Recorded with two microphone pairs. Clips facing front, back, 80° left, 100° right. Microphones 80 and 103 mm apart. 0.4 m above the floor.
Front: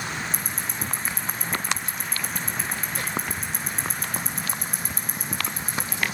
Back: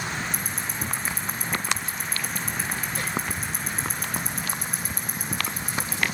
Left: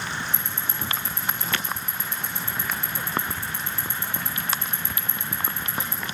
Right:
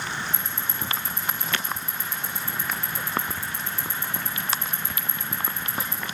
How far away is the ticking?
About 3 m.